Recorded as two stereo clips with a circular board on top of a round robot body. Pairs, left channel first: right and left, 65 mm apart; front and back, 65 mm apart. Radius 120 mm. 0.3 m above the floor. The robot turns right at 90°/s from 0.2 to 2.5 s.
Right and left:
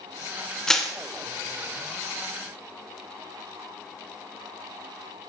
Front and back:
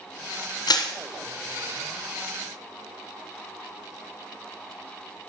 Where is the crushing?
10° right, 1.3 m; by 0.9 s 10° left, 1.3 m.